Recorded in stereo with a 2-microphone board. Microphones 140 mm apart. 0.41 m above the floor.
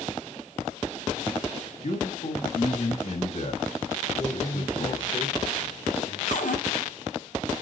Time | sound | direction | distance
1.8 | a man speaking | 55° left (ahead or behind) | 3 m
4.2 | a man speaking | 40° left (ahead or behind) | 1.7 m
6.3 | a cupboard door | 65° left (ahead or behind) | 3.5 m